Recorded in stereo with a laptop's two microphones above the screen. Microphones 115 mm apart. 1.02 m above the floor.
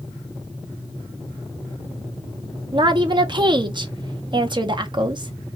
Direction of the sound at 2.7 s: 40° right (ahead or behind).